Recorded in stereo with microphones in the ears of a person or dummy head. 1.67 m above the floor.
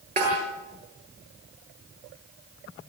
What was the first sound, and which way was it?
A snare drum, 40° right (ahead or behind).